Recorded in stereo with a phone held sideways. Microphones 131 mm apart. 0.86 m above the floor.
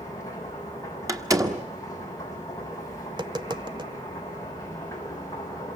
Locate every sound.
0.0 s a machine running: 25° left (ahead or behind), 6.5 m
1.1 s a door slam: 25° right (ahead or behind), 1.2 m
3.1 s tapping: 35° right (ahead or behind), 0.7 m